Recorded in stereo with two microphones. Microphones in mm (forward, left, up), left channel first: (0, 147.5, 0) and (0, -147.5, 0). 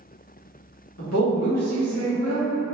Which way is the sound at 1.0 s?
55° left (ahead or behind).